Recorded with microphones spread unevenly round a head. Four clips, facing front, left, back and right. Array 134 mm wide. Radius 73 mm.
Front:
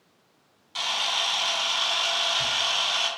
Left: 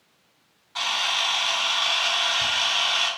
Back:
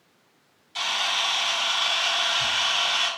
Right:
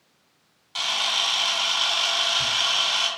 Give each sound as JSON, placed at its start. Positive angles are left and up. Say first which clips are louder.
{"t": 0.8, "sound": "a camera shutter", "louder": "left 1 dB, back 2 dB", "azimuth_deg": -65, "distance_m": 1.6}